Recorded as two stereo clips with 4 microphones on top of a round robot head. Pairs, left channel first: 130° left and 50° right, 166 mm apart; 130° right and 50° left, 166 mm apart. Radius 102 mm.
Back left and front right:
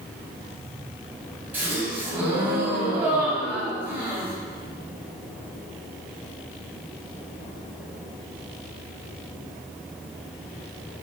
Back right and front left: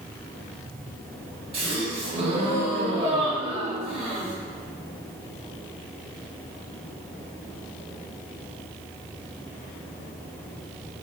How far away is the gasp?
About 0.9 m.